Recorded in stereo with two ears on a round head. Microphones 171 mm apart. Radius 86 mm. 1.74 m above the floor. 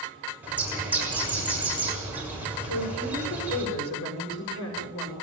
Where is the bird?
10° right (ahead or behind), 7 m.